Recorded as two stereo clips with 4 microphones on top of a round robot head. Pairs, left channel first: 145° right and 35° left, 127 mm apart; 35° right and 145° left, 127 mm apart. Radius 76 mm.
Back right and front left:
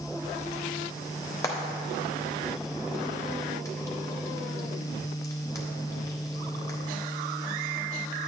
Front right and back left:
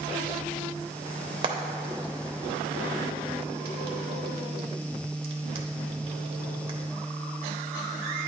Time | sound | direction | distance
1.4 | frying | 160° left | 0.7 m